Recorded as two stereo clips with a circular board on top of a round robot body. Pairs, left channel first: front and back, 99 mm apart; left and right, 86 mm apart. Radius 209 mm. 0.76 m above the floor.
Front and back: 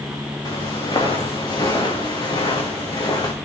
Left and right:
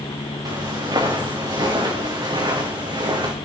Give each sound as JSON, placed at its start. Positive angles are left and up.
{"t": 0.5, "sound": "footsteps", "azimuth_deg": -50, "distance_m": 5.5}